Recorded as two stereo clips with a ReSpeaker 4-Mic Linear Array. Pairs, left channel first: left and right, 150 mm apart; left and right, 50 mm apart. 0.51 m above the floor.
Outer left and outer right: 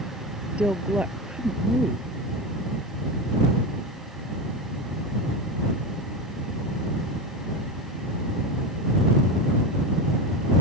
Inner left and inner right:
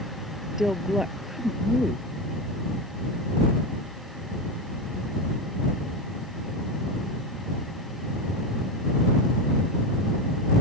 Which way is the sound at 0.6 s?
10° right (ahead or behind).